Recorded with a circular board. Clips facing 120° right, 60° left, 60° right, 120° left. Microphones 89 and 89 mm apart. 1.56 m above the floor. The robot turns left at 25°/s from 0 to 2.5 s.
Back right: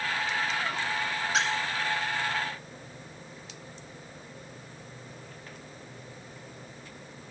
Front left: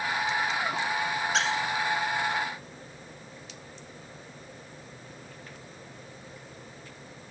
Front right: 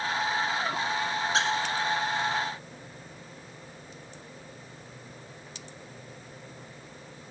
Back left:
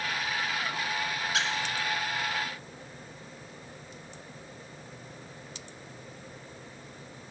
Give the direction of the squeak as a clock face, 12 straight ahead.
1 o'clock.